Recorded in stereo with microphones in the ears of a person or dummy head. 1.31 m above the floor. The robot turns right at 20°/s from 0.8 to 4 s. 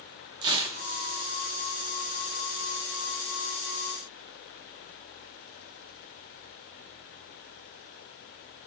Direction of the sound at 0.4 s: 25° right (ahead or behind).